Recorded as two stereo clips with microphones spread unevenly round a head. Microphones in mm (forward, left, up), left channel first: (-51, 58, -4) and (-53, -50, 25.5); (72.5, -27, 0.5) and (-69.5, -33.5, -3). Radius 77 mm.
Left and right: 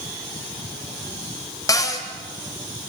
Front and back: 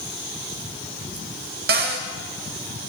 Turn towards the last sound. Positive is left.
turn(degrees=150)